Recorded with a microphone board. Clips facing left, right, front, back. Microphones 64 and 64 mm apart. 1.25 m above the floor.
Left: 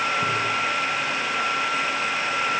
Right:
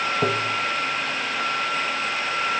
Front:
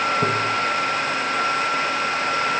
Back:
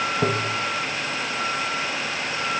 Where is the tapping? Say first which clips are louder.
Right 1 dB, front 3 dB; 105° right, 1.5 m.